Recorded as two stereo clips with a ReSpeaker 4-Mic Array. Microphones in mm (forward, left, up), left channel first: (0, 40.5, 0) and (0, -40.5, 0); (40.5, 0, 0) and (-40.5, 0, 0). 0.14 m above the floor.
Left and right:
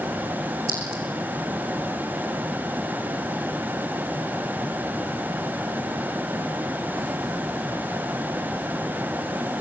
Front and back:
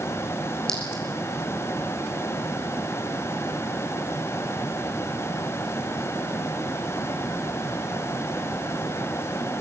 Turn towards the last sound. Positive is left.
turn(degrees=-80)